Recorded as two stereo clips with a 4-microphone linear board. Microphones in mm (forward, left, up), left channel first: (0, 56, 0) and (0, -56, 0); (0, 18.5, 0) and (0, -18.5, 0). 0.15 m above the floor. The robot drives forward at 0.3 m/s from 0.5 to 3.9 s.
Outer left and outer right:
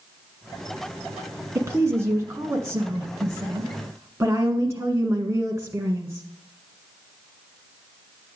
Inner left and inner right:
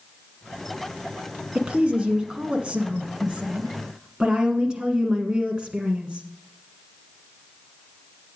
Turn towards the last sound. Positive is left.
turn(degrees=-25)  # may be behind; listen again after turning